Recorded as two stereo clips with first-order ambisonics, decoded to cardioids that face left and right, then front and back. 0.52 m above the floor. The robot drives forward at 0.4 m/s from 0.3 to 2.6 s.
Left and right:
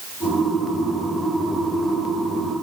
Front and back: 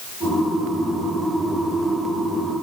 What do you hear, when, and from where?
Only background noise.